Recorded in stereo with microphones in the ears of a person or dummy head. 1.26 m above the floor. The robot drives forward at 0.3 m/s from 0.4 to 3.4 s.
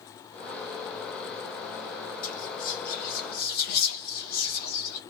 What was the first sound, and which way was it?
Whispering, 45° left (ahead or behind).